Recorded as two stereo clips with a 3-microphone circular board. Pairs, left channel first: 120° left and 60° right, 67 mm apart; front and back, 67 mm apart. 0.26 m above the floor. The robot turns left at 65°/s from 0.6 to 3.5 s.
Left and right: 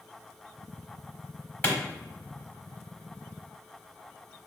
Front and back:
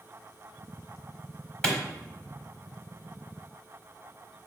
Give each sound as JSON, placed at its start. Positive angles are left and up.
{"t": 1.6, "sound": "a clap", "azimuth_deg": 65, "distance_m": 1.1}